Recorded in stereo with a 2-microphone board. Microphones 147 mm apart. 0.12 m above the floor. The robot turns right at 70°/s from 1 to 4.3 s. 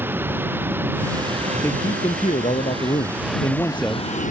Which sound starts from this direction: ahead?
A man speaking, at 1.6 s.